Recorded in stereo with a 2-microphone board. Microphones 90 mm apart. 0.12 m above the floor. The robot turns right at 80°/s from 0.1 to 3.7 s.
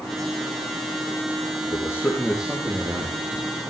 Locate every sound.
1.7 s a man speaking: 135° left, 4.5 m; by 3.3 s 100° right, 4.5 m